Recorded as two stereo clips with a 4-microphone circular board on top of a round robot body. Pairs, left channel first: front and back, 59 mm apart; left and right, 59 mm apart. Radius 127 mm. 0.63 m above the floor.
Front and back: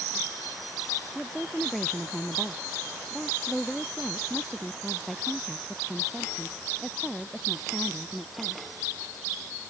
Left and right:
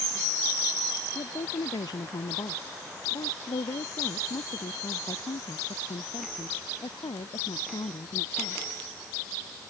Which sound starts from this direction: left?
A woman speaking, at 1.1 s.